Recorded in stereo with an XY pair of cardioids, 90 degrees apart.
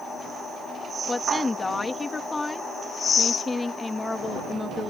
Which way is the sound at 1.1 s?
25° left.